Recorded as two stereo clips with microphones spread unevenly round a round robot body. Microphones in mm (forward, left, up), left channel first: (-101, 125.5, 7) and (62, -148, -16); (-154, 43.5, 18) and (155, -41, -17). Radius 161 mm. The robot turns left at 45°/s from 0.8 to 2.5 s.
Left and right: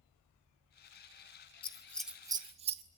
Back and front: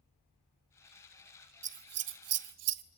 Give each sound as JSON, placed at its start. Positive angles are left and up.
{"t": 1.6, "sound": "scissors", "azimuth_deg": 45, "distance_m": 0.8}